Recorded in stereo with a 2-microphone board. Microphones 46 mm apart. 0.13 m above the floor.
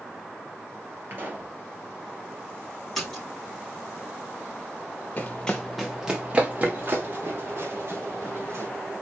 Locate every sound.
1.1 s a pop: 40° right (ahead or behind), 2.5 m
3.0 s a splash: 5° left (ahead or behind), 4 m
5.2 s running footsteps: 30° left (ahead or behind), 0.9 m; by 8.7 s 55° right (ahead or behind), 3 m